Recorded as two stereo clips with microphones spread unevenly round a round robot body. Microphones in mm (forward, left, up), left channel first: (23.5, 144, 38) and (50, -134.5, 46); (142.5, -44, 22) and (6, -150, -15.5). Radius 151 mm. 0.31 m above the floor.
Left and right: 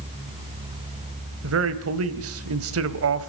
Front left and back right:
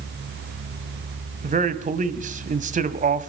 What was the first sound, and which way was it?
A man speaking, 120° right.